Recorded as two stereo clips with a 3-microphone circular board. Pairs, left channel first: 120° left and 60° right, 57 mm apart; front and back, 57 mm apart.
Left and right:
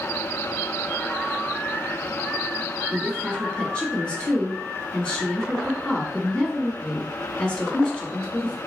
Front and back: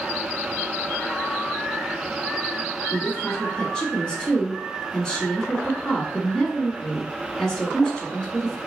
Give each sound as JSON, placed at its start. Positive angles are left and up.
{"t": 2.9, "sound": "a woman speaking", "azimuth_deg": 65, "distance_m": 1.3}